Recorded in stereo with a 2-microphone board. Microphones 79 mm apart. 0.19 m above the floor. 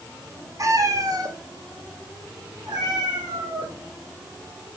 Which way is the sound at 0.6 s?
45° right (ahead or behind).